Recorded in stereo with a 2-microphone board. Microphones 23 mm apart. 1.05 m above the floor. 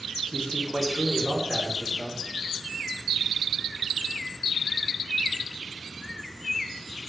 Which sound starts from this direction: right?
A man speaking, at 0.3 s.